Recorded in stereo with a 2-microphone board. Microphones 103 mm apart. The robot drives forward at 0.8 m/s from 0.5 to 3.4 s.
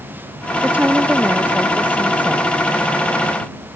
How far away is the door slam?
No door slam in this recording.